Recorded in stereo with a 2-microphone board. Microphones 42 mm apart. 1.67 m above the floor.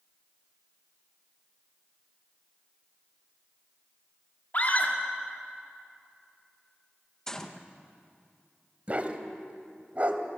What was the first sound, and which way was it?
A scream, 45° left (ahead or behind).